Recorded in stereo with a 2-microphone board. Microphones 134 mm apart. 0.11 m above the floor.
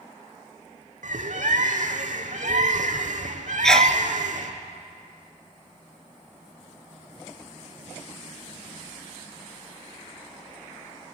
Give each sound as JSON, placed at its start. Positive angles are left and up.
{"t": 1.0, "sound": "a bird", "side_deg": -75, "distance_m": 2.0}
{"t": 3.6, "sound": "a sneeze", "side_deg": 5, "distance_m": 1.5}